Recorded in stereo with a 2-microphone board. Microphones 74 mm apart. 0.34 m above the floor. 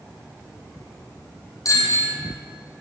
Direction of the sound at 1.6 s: 50° left (ahead or behind).